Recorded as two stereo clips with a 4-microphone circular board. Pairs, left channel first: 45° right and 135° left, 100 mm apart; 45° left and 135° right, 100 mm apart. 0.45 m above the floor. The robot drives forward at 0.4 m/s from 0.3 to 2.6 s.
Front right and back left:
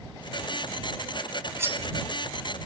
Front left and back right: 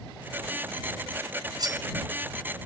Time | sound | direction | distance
1.6 | cutlery clinking | 165° right | 0.8 m